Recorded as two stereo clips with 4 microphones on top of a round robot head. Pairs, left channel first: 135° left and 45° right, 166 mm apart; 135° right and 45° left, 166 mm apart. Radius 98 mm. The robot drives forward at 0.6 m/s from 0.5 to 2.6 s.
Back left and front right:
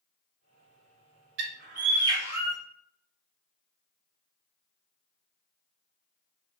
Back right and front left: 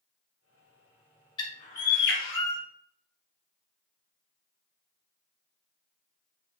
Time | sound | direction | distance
1.4 | a bird | 70° right | 0.6 m